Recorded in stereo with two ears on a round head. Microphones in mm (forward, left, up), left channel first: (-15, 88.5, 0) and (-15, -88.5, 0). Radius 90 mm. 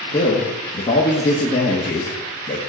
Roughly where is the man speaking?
Left.